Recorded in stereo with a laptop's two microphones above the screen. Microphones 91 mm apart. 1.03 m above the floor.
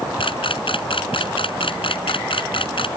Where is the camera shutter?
70° left (ahead or behind).